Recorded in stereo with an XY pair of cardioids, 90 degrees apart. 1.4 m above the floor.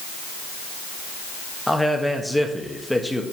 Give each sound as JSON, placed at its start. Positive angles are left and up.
{"t": 1.7, "sound": "a man speaking", "azimuth_deg": 5, "distance_m": 1.3}